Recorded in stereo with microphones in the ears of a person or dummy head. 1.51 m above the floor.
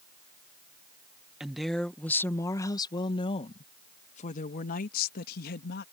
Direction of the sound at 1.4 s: 5° right (ahead or behind).